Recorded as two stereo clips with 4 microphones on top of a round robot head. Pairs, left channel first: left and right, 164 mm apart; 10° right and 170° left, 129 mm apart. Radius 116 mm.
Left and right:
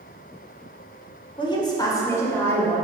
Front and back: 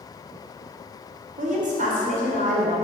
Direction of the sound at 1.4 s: 150° left.